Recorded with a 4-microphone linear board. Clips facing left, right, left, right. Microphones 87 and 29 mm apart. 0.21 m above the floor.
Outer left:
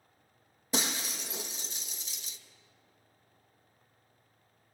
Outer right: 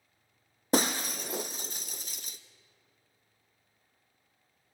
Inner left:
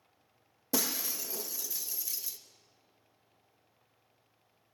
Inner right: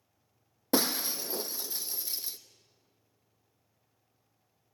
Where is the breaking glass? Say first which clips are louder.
Outer right 7 dB, inner right 5 dB; 50° right (ahead or behind), 0.9 m.